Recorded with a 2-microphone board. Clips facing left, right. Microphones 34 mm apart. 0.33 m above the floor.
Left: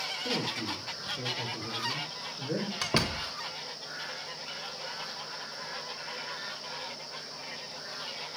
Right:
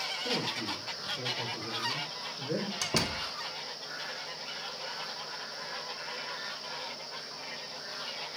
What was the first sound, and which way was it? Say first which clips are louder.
A man speaking: left 1 dB; 15° left (ahead or behind).